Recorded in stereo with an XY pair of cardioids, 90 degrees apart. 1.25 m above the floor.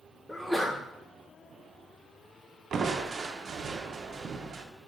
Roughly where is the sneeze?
Ahead.